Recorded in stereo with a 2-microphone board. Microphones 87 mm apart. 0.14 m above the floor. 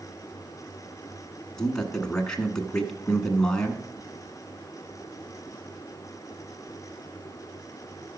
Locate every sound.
1.6 s a man speaking: 10° left (ahead or behind), 1.1 m